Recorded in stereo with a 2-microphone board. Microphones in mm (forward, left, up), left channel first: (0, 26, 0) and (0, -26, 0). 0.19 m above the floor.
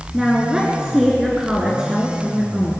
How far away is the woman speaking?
About 2 m.